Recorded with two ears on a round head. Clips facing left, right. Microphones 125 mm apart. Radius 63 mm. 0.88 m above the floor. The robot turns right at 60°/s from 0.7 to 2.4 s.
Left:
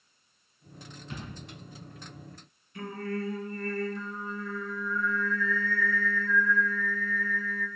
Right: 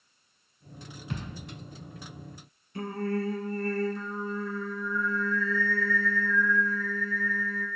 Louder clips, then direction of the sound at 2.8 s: Right 4 dB; 30° right (ahead or behind).